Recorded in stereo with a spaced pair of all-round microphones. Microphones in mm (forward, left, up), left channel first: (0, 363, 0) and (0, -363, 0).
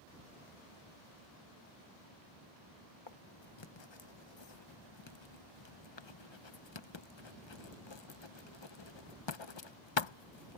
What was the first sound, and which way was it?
Writing, 40° left (ahead or behind).